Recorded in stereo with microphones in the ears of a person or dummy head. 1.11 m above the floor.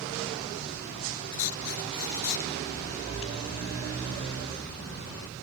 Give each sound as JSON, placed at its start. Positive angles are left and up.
{"t": 1.3, "sound": "writing", "side_deg": 75}